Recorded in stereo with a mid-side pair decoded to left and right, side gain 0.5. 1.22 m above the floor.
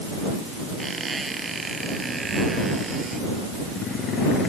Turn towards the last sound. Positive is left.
turn(degrees=-20)